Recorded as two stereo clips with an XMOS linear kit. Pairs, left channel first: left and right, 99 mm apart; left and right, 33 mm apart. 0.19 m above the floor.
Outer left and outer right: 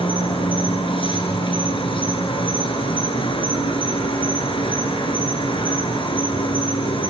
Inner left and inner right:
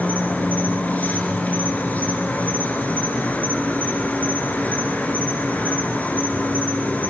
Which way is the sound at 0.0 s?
60° left (ahead or behind).